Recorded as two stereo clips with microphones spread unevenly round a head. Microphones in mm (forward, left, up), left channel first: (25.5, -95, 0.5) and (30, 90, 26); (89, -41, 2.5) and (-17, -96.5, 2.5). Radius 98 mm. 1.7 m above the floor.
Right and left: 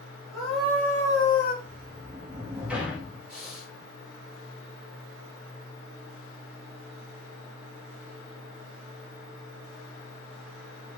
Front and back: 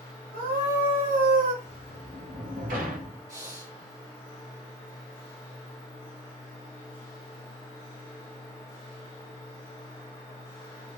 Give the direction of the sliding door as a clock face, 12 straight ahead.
6 o'clock.